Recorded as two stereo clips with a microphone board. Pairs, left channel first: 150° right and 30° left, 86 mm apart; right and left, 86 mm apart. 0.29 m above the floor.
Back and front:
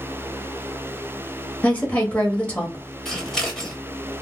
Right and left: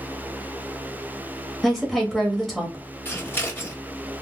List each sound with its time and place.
1.6 s a woman speaking: straight behind, 0.9 m
3.0 s scissors: 75° right, 1.4 m